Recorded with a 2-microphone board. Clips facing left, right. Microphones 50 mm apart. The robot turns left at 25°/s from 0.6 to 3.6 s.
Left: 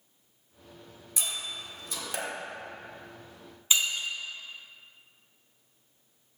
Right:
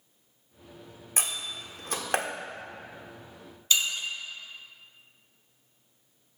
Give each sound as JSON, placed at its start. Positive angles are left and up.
{"t": 1.2, "sound": "a door slam", "side_deg": -50, "distance_m": 1.3}
{"t": 3.7, "sound": "breaking glass", "side_deg": 20, "distance_m": 1.7}